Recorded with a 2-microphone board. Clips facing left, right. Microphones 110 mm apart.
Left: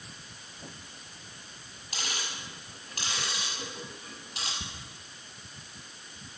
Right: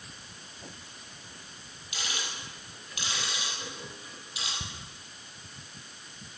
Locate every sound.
1.9 s ticking: 45° left (ahead or behind), 6 m
4.6 s ticking: 15° right (ahead or behind), 1.3 m